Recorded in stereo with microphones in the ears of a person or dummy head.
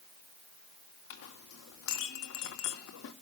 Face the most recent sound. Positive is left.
turn(degrees=75)  # may be behind; listen again after turning